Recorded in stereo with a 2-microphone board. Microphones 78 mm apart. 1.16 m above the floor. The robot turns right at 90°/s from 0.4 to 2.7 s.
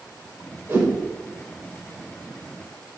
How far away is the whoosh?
About 6 m.